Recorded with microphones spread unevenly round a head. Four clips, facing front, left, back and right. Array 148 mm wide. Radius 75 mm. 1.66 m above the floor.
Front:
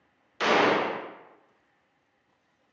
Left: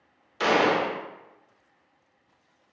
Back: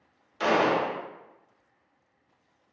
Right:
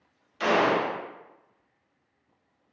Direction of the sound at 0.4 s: 60° left.